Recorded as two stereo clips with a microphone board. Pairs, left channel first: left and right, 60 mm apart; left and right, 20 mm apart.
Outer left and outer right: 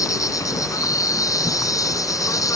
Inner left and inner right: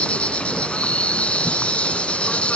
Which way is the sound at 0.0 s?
75° left (ahead or behind).